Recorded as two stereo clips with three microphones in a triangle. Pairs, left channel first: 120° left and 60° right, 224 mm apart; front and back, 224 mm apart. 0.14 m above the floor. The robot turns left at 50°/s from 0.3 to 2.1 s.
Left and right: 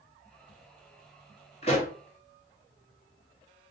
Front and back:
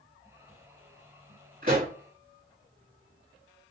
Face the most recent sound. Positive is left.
turn(degrees=140)